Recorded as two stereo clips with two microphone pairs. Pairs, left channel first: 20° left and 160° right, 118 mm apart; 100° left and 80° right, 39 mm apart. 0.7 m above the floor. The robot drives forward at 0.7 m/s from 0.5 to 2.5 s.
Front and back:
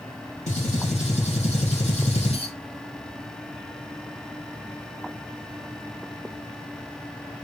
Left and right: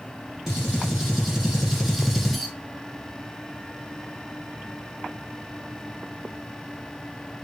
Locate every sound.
0.5 s a gunshot: 5° left, 2 m; by 2.5 s 15° left, 0.8 m